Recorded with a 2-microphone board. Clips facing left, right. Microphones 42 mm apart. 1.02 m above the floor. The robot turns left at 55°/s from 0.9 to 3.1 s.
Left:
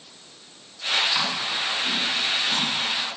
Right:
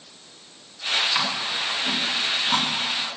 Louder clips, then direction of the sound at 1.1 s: Even; 10° right (ahead or behind).